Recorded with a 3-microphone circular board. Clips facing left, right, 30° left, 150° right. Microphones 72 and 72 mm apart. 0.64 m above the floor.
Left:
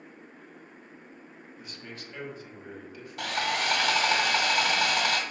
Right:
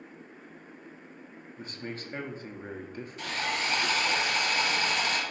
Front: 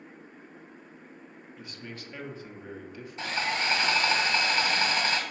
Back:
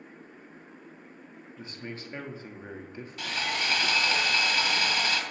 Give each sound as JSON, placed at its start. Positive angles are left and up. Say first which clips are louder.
{"t": 1.6, "sound": "a man speaking", "louder": "right 6 dB, back 3 dB", "azimuth_deg": -105, "distance_m": 0.9}
{"t": 3.2, "sound": "sawing", "louder": "left 3 dB, front 2 dB", "azimuth_deg": 90, "distance_m": 1.0}